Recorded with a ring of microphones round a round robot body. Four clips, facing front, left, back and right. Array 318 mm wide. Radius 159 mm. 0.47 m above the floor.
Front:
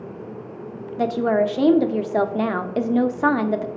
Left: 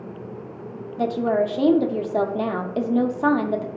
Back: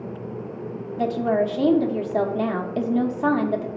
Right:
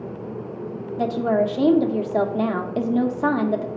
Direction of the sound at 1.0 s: 5° left.